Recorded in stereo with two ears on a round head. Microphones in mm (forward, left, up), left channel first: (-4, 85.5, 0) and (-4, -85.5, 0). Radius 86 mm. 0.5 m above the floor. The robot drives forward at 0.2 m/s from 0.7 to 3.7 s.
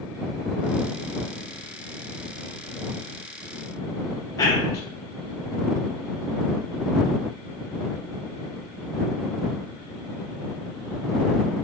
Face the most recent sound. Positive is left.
turn(degrees=20)  # may be behind; listen again after turning